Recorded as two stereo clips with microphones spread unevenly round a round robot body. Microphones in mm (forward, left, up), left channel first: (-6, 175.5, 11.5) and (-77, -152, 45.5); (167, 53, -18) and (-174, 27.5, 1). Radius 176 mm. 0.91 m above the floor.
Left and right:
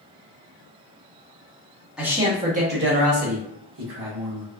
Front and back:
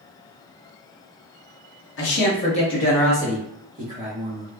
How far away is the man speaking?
About 0.8 m.